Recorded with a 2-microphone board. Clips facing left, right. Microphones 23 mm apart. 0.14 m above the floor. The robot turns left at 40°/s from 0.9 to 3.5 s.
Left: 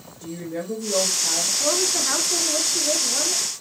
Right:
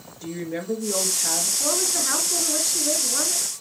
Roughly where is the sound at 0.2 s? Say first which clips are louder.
Right 1 dB; right.